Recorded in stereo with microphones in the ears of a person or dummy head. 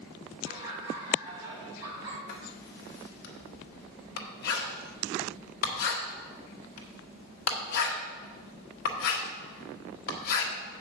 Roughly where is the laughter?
Right.